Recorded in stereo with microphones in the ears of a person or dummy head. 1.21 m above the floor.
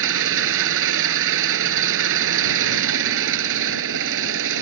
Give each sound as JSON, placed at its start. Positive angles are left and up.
{"t": 0.0, "sound": "an engine running", "side_deg": -70}